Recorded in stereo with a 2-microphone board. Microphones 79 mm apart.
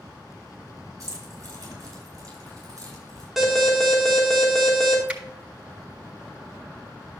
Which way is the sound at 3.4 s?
5° right (ahead or behind).